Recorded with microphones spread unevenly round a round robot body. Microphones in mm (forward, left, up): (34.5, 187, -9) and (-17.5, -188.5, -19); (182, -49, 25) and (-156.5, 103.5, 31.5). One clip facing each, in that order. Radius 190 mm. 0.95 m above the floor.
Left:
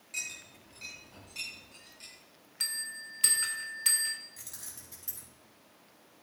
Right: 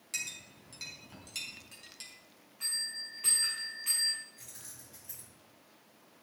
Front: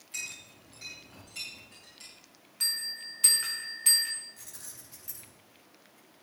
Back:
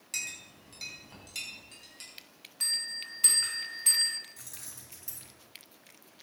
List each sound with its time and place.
0.1 s a clink: 145° right, 4.5 m
2.6 s a bell: 60° left, 2.5 m
4.4 s keys jangling: 90° left, 6 m